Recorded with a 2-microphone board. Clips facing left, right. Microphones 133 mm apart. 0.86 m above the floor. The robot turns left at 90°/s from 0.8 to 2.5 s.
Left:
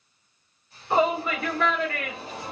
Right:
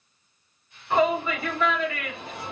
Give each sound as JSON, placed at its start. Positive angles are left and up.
{"t": 0.9, "sound": "a shout", "side_deg": 15, "distance_m": 2.0}